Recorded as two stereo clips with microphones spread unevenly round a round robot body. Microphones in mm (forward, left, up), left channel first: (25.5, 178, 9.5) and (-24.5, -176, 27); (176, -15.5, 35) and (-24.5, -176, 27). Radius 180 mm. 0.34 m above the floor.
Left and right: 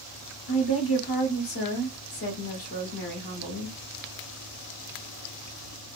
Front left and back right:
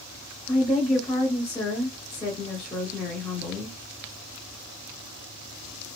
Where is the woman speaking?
100° left, 1.3 m.